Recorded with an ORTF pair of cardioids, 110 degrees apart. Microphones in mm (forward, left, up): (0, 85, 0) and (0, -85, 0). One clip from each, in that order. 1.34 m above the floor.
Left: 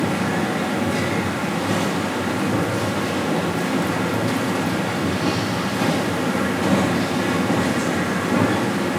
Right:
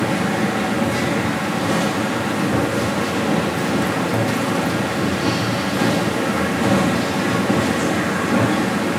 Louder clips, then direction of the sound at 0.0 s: Right 2 dB; 15° right.